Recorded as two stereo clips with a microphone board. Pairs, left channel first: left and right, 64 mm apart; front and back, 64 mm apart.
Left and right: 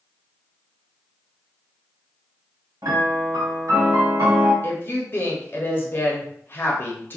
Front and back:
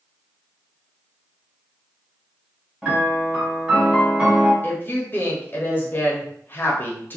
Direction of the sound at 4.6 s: 45° left.